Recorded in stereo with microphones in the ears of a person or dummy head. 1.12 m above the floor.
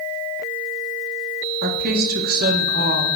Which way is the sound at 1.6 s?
50° right (ahead or behind).